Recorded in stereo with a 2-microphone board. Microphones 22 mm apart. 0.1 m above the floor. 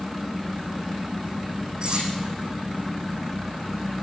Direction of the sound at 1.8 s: 45° right (ahead or behind).